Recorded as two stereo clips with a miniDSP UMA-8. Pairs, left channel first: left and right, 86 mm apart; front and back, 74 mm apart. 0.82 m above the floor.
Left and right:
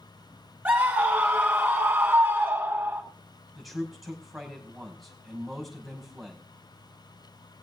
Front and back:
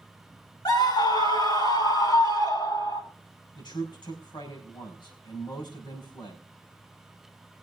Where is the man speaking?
Straight ahead, 5.5 m.